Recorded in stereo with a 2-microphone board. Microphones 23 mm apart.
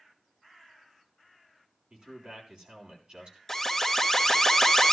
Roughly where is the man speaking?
Right.